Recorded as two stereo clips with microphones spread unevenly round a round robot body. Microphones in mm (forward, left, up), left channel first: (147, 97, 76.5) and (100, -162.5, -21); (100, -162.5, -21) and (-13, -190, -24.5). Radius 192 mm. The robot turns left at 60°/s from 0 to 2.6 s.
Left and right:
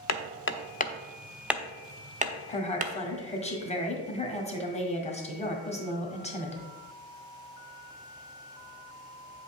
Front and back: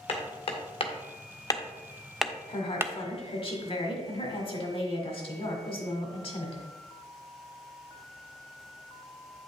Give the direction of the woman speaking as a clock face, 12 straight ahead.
12 o'clock.